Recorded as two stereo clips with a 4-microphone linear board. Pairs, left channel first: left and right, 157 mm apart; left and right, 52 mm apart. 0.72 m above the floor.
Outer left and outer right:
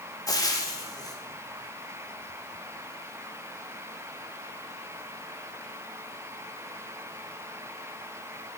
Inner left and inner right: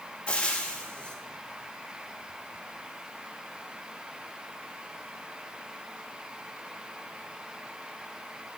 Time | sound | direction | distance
0.3 | frying | 20° left (ahead or behind) | 1.0 m